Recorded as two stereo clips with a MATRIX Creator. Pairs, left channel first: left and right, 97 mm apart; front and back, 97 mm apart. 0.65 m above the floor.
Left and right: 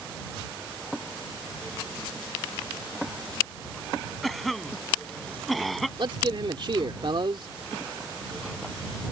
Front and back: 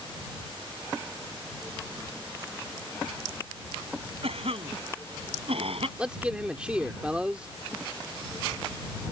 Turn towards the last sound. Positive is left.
turn(degrees=-100)